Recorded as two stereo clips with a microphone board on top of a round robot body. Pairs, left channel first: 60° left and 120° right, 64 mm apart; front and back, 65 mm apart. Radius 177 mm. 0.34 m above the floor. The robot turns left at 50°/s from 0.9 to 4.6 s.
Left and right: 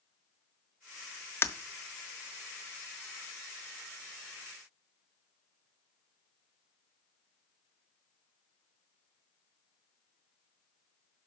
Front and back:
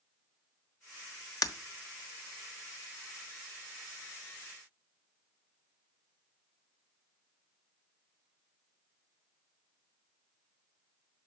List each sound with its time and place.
1.4 s breaking glass: 5° left, 1.3 m; by 1.5 s straight ahead, 1.3 m